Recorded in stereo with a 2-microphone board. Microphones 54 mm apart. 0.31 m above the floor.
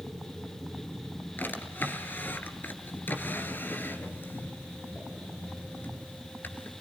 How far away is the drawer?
About 2.0 m.